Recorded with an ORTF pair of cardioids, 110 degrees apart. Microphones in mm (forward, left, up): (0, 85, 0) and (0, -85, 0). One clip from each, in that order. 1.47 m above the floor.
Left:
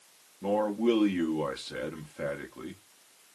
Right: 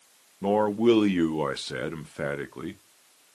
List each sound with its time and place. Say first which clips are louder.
0.4 s a man speaking: right 5 dB; 35° right, 0.6 m